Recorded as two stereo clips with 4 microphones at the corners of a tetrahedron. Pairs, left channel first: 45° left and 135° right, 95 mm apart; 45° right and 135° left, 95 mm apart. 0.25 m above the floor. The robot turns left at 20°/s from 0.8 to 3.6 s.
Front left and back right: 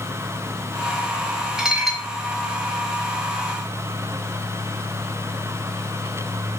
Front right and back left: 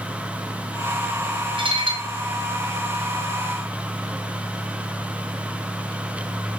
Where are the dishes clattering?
140° left, 2 m; by 2.1 s 130° left, 2 m.